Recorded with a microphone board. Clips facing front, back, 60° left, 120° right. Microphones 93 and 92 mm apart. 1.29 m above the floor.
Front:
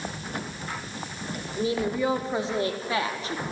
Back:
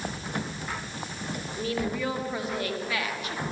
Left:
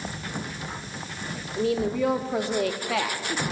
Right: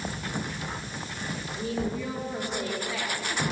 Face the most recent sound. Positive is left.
turn(degrees=55)